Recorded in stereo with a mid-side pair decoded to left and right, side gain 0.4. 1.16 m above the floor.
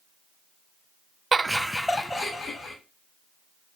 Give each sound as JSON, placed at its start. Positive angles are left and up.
{"t": 1.3, "sound": "laughter", "azimuth_deg": -35, "distance_m": 0.6}